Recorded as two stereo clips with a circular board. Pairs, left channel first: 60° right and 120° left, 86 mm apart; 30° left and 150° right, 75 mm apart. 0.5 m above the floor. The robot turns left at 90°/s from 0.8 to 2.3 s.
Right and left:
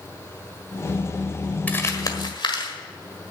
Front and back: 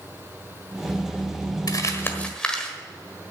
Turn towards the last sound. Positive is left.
turn(degrees=-50)